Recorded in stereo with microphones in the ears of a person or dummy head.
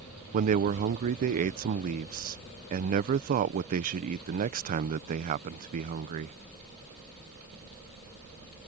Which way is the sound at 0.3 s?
40° right (ahead or behind).